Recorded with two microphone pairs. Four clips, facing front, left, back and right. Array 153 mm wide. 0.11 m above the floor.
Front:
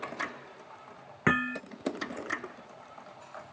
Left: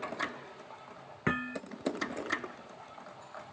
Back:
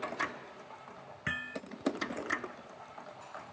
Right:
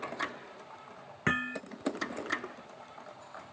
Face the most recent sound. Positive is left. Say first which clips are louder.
# right 1 dB, front 11 dB
turn(degrees=10)